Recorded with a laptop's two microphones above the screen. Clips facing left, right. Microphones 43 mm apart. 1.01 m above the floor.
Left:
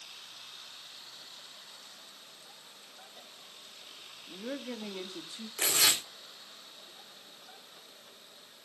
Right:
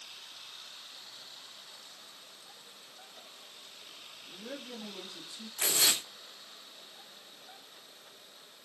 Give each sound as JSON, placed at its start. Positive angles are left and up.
{"t": 4.3, "sound": "a woman speaking", "side_deg": 25, "distance_m": 1.9}
{"t": 5.6, "sound": "tearing paper", "side_deg": 70, "distance_m": 3.5}